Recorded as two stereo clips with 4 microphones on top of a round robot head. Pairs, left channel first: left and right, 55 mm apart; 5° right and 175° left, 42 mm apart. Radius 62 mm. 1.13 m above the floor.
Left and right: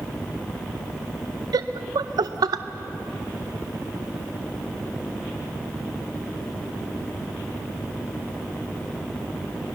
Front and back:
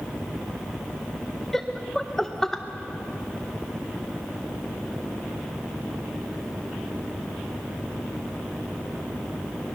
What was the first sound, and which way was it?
Laughter, 90° right.